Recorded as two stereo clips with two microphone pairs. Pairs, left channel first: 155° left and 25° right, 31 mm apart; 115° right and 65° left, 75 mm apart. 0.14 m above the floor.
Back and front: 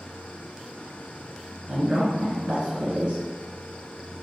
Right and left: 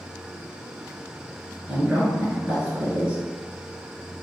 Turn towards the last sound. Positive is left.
turn(degrees=15)